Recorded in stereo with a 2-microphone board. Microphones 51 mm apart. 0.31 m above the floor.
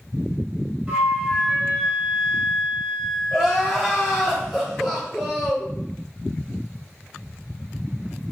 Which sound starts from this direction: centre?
Crying, at 3.3 s.